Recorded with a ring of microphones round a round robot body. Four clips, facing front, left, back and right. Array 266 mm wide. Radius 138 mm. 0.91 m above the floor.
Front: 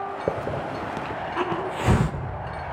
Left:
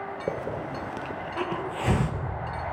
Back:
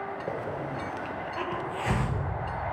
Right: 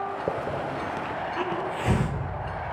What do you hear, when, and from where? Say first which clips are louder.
0.3 s a hiss: even, front 7 dB; straight ahead, 0.8 m